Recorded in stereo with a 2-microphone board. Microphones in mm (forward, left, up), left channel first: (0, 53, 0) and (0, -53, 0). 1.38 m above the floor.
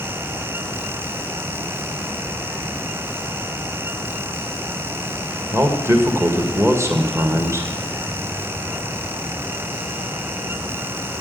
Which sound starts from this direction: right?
A man speaking, at 5.5 s.